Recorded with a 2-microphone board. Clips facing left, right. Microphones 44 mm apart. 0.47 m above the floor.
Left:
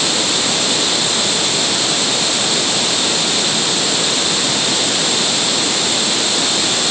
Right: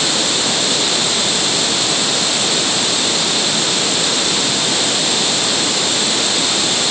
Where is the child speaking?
No child speaking in this recording.